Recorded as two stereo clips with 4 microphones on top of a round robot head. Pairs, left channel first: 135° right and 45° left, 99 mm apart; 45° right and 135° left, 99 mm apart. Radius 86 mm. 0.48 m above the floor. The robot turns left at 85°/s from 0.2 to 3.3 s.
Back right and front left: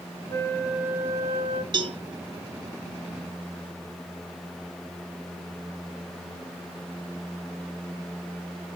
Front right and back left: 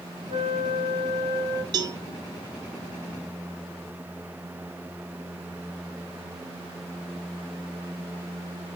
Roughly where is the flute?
Behind.